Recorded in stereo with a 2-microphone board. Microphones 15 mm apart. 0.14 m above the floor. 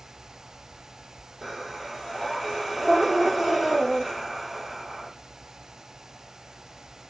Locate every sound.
1.4 s breathing: 15° right (ahead or behind), 3.5 m